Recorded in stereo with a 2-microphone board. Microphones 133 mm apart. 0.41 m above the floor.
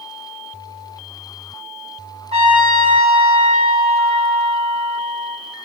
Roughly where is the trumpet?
Right.